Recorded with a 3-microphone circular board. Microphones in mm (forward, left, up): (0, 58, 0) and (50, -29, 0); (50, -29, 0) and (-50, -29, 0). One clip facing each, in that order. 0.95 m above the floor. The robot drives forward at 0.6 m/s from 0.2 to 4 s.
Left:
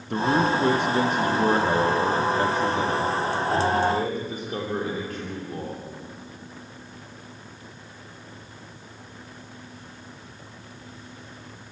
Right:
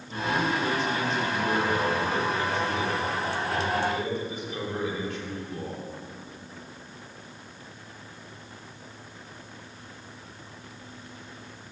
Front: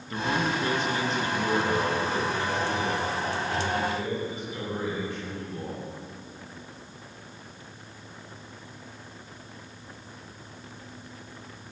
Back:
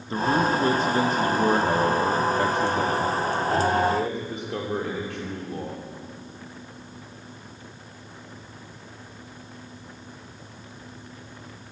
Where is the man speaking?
125° left, 1.2 m; by 5.8 s 165° left, 3 m.